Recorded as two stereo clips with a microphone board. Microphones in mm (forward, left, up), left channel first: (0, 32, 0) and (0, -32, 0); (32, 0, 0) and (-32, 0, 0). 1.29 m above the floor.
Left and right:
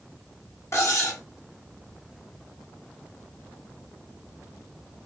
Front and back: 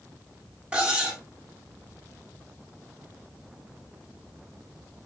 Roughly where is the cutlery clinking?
Left.